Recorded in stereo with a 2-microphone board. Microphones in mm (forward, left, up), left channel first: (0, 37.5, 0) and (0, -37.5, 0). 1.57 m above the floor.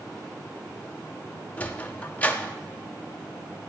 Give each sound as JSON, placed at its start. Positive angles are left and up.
{"t": 1.6, "sound": "a sliding door", "side_deg": 20, "distance_m": 0.6}